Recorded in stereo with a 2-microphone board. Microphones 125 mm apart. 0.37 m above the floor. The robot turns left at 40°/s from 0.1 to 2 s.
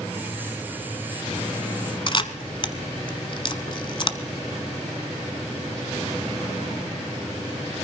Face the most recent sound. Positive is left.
turn(degrees=40)  # may be behind; listen again after turning